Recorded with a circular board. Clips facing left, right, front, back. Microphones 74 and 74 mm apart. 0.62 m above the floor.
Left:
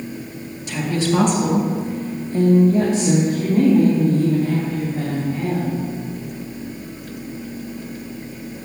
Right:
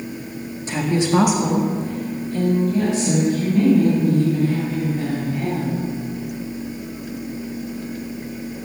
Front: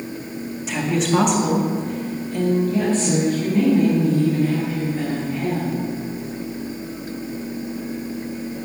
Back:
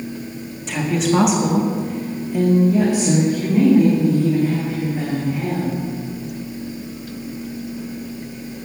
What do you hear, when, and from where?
0.7 s a woman speaking: 85° right, 1.3 m; by 5.8 s 105° left, 3.5 m